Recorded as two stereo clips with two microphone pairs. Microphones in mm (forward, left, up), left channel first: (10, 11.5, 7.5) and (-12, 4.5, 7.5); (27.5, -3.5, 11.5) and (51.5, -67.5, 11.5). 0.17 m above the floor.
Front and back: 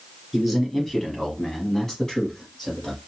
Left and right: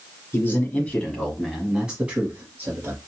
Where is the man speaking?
100° left, 1.4 m; by 3.0 s 40° right, 1.6 m.